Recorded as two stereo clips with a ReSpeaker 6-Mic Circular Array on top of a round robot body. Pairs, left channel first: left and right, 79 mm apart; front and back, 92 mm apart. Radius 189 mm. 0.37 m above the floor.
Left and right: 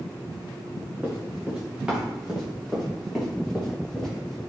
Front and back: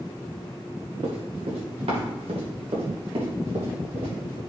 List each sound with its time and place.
1.0 s running footsteps: 160° right, 3.5 m; by 4.4 s 175° left, 5.5 m